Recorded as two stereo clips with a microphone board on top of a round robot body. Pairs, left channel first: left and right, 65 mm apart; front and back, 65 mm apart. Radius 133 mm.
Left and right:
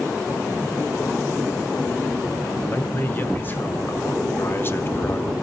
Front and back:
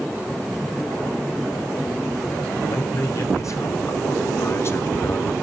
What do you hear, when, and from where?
2.7 s a man speaking: 30° left, 3 m; by 5.3 s 45° left, 1.4 m